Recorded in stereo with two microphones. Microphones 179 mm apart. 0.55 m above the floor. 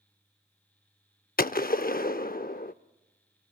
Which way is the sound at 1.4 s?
55° left (ahead or behind).